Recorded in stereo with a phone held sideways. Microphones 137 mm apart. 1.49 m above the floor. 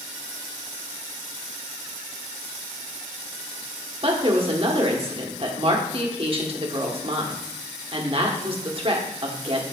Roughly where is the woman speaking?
Right.